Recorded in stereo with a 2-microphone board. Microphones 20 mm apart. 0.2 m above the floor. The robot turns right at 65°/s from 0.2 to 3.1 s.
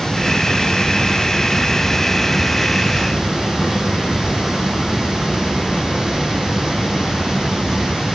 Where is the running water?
40° left, 4.5 m; by 8.1 s 130° right, 4.5 m.